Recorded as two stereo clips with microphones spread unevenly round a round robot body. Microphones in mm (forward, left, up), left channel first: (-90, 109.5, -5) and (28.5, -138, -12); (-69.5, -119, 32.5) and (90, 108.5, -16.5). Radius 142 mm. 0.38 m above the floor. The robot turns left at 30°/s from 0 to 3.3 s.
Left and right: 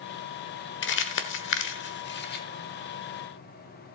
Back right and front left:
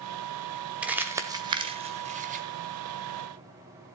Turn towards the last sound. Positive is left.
turn(degrees=50)